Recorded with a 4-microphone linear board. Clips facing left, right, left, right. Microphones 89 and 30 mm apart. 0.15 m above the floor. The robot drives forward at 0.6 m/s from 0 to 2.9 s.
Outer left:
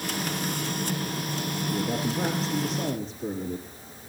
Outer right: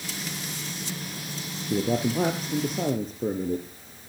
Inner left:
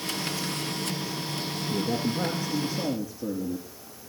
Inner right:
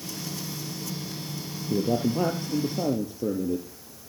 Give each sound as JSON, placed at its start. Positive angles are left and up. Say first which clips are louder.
{"t": 1.7, "sound": "a man speaking", "louder": "outer right 5 dB, inner right 4 dB", "side_deg": -55, "distance_m": 3.0}